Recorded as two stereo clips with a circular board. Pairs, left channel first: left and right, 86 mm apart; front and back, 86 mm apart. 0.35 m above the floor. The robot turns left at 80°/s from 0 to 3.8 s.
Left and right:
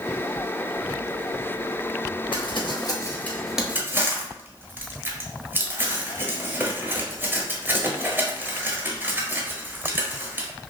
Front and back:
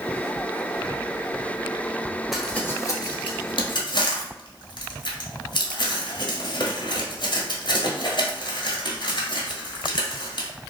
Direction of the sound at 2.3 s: 95° left.